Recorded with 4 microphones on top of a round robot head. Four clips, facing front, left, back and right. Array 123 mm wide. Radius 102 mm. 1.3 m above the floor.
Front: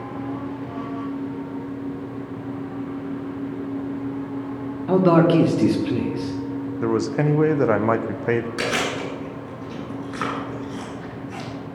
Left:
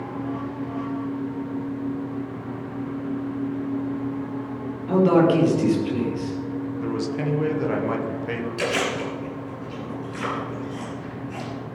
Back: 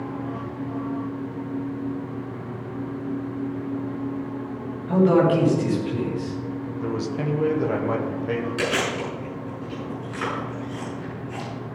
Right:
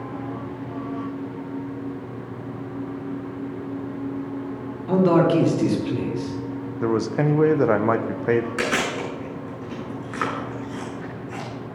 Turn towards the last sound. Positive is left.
turn(degrees=-60)